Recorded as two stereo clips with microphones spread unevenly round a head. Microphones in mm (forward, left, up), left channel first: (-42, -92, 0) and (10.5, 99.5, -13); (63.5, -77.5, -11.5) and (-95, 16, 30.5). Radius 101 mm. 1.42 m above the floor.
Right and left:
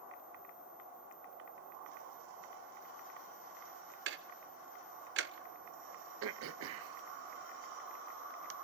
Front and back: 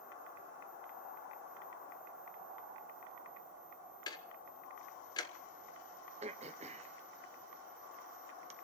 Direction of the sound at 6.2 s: 85° left.